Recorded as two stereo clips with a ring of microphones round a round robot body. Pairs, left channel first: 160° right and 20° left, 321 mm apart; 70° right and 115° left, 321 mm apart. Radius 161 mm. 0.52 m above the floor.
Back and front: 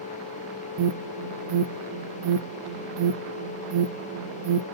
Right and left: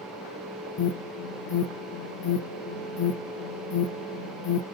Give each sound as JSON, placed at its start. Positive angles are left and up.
{"t": 0.8, "sound": "an alarm", "azimuth_deg": -20, "distance_m": 0.5}